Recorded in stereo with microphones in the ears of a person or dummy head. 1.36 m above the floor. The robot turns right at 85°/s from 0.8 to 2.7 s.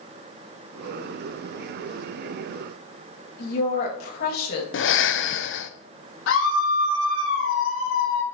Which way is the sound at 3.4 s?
60° left (ahead or behind).